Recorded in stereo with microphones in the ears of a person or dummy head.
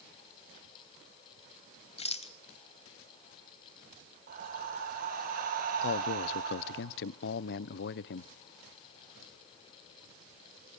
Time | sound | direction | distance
2.0 | a rattle | 35° left (ahead or behind) | 0.8 m
4.3 | breathing | 50° right (ahead or behind) | 6 m
5.8 | a man speaking | 60° left (ahead or behind) | 0.8 m